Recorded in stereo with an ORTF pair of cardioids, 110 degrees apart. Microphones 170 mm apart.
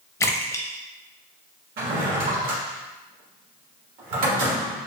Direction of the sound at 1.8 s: 65° right.